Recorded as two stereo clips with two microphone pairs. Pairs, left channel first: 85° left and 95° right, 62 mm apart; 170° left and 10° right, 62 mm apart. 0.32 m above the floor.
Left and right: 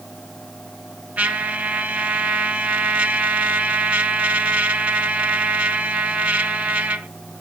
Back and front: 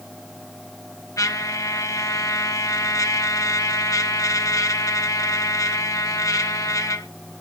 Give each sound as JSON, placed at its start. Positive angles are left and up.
{"t": 1.2, "sound": "a trumpet", "azimuth_deg": -165, "distance_m": 0.9}